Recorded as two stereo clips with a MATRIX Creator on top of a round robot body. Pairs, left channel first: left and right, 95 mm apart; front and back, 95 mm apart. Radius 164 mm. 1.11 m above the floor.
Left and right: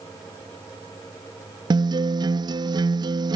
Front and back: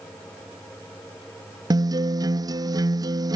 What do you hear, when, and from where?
1.7 s a guitar: 130° right